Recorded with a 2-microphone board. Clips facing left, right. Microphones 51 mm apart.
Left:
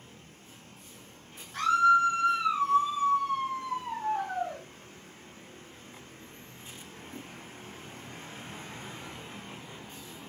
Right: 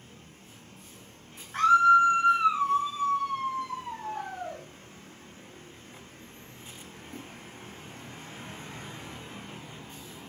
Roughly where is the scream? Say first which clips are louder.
Right 3 dB; right.